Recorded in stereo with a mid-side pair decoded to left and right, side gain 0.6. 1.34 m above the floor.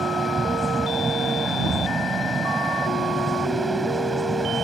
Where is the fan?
15° right.